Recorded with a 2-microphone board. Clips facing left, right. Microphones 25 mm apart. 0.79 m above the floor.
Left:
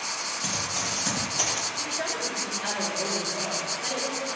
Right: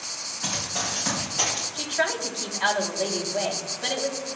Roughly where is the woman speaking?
Right.